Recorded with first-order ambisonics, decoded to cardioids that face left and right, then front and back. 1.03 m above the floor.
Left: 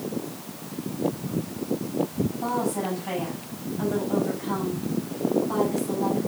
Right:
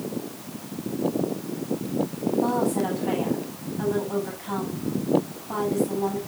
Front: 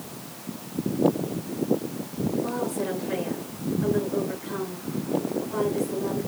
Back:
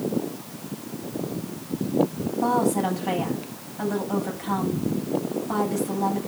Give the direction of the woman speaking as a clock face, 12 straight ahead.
6 o'clock.